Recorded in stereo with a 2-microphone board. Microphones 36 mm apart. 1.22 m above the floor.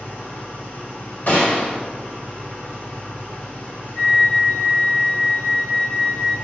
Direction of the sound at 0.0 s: 60° left (ahead or behind).